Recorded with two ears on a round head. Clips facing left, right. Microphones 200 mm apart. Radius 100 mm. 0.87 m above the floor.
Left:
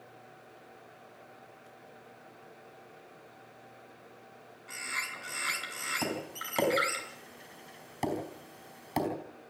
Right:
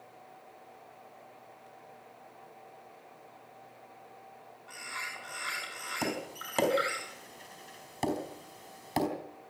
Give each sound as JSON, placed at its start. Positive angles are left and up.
{"t": 4.7, "sound": "a bird", "side_deg": 30, "distance_m": 6.5}
{"t": 6.0, "sound": "tapping", "side_deg": -5, "distance_m": 4.0}